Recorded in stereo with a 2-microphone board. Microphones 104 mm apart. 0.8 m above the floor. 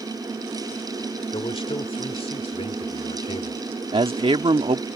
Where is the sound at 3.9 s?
60° right (ahead or behind).